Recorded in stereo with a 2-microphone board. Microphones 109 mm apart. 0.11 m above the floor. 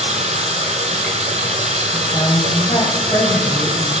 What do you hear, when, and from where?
0.0 s running water: 75° right (ahead or behind), 0.8 m
1.9 s a woman speaking: 35° left (ahead or behind), 3 m